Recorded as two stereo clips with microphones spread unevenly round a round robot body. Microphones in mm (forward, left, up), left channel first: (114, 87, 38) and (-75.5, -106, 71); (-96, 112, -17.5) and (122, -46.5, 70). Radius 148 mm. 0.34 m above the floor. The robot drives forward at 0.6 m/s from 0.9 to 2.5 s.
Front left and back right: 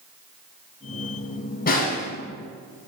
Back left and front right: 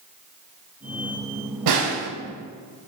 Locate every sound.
1.7 s a snare drum: 15° right, 0.8 m; by 2.1 s 20° right, 0.6 m